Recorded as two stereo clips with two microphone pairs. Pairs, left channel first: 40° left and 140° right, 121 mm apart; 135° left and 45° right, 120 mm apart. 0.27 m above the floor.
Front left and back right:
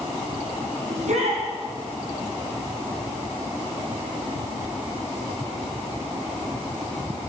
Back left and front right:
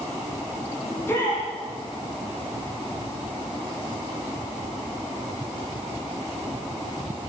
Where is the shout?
160° right, 8.5 m.